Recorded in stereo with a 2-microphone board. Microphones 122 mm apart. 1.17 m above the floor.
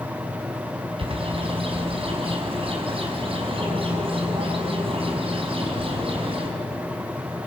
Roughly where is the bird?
Right.